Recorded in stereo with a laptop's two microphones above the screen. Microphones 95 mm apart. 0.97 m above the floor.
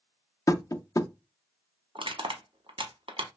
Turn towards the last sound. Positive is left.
turn(degrees=-70)  # may be behind; listen again after turning